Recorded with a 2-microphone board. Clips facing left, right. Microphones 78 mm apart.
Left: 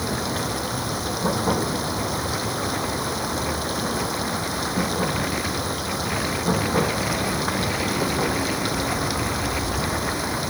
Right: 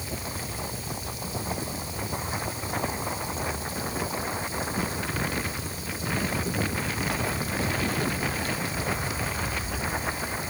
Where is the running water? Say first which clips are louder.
Left 10 dB; 70° left (ahead or behind).